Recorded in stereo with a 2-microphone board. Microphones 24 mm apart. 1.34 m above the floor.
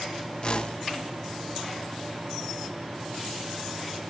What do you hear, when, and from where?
0.4 s a whoosh: 40° left (ahead or behind), 1.0 m